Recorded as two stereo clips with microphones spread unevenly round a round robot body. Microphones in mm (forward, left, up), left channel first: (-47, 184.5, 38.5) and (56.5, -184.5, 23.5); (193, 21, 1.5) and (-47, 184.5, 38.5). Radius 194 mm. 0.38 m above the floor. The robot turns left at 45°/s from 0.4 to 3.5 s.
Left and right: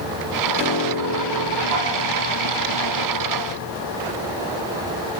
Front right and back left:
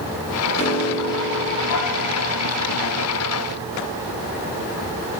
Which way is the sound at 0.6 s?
15° left.